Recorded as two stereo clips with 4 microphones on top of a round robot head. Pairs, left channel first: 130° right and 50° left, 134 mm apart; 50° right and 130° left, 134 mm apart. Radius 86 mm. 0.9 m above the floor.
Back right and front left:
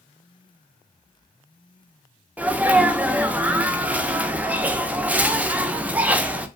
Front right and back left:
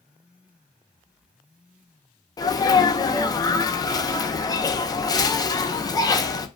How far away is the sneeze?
About 0.5 m.